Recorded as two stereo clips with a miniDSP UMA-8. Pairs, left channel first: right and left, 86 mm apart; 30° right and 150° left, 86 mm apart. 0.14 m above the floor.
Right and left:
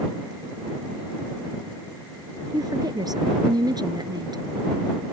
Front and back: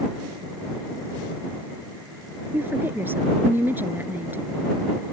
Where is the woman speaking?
95° left.